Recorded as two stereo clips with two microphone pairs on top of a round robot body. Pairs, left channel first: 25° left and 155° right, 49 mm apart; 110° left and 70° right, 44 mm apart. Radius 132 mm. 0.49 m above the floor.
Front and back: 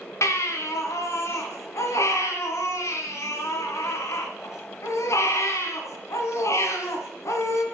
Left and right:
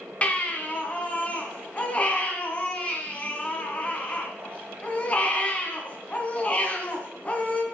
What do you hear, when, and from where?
0.2 s a baby crying: 45° left, 2 m